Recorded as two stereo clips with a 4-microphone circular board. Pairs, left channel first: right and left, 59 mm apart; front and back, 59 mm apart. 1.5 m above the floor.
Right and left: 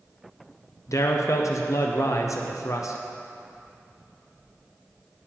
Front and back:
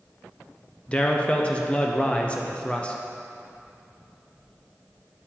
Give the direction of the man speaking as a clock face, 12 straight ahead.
2 o'clock.